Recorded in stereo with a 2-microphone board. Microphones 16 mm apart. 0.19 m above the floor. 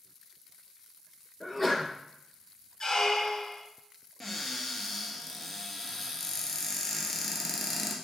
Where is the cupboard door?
5° left (ahead or behind), 1.3 m.